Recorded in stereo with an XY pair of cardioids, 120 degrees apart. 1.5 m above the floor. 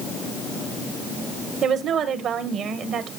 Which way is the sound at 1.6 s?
60° right.